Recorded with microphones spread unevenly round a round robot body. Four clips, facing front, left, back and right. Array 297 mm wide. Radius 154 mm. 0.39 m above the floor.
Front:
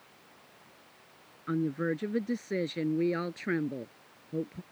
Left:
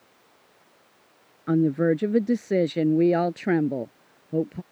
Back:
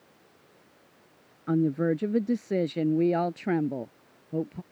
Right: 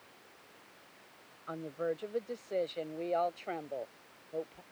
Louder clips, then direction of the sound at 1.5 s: Left 16 dB, back 6 dB; 115° left.